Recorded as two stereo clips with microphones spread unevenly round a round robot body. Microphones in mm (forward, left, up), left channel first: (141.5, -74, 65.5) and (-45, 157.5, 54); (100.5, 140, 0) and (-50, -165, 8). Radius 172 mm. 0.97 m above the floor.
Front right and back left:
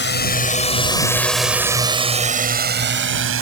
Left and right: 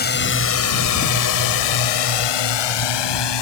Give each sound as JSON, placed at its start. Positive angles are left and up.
{"t": 0.0, "sound": "a drone", "azimuth_deg": 0}